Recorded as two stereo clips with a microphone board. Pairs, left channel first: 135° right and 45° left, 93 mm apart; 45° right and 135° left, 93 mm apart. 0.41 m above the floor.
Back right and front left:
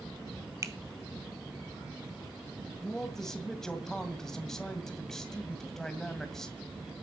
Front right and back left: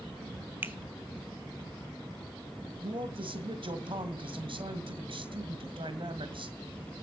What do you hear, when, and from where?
0.6 s a finger snap: 80° left, 1.1 m
2.8 s a man speaking: 140° left, 2.0 m